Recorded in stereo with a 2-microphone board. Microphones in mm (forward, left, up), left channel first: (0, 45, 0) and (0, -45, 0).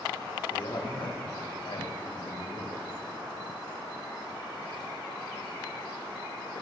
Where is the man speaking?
65° left (ahead or behind), 4 m; by 2.9 s 80° left, 5.5 m.